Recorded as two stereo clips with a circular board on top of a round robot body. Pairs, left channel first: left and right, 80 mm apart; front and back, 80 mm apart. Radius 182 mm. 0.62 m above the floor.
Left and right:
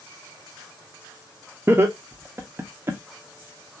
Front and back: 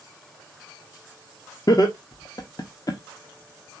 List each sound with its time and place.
1.7 s laughter: 35° right, 1.0 m